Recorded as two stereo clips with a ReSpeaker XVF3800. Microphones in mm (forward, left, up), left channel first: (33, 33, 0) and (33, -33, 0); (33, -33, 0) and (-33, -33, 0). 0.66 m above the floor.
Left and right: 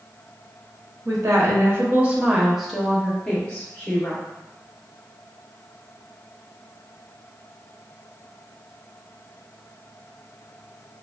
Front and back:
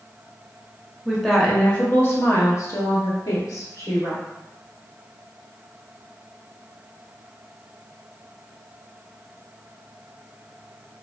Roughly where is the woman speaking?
Right.